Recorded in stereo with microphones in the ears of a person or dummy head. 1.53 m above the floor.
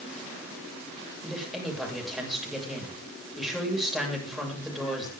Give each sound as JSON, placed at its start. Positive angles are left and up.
{"t": 1.2, "sound": "a woman speaking", "side_deg": 0, "distance_m": 7.5}